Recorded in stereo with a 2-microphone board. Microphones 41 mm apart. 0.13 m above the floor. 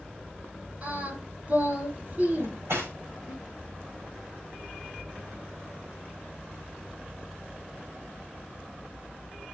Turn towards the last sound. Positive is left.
turn(degrees=-80)